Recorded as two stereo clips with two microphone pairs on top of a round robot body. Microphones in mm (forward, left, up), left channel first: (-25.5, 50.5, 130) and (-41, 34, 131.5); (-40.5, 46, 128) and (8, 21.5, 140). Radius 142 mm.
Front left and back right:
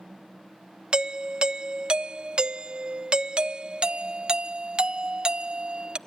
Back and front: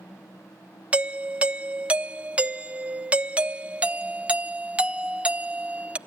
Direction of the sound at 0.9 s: 100° right.